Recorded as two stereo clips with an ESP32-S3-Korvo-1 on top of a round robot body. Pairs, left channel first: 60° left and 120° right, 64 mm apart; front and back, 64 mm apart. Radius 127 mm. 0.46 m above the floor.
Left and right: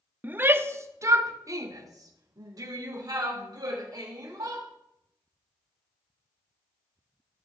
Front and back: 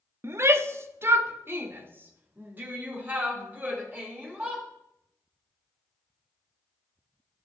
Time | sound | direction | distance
0.2 | a shout | 170° right | 1.0 m